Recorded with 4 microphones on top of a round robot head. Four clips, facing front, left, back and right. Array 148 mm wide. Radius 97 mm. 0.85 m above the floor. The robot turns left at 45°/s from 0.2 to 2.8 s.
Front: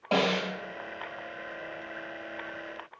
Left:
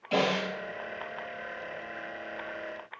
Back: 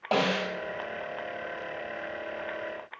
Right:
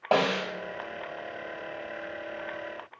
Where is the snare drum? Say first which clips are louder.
Right 2 dB, even; 100° right, 1.2 m; by 0.5 s 115° right, 1.2 m.